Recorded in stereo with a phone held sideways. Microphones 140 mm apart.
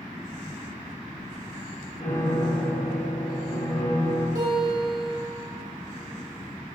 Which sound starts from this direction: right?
A guitar, at 4.3 s.